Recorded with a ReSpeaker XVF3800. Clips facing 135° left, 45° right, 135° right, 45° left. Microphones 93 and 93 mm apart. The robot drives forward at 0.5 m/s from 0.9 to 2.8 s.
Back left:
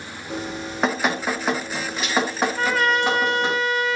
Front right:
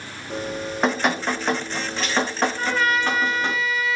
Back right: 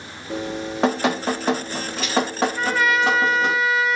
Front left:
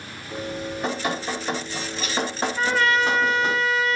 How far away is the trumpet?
About 1.5 m.